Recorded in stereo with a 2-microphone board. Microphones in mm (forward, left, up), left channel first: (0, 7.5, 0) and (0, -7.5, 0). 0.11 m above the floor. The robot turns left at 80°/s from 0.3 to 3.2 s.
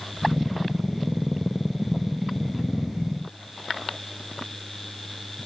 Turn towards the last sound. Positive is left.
No sound to turn to.